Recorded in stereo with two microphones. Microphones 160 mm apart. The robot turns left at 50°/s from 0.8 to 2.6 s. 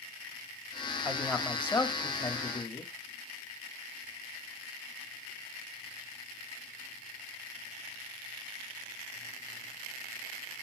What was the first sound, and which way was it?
A man speaking, 165° right.